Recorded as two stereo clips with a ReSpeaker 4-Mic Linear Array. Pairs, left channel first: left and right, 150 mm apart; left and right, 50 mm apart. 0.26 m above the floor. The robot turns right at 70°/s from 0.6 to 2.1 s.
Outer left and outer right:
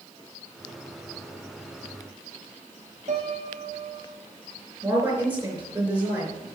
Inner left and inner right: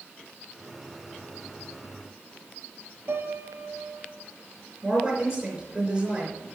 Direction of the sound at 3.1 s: 55° right (ahead or behind).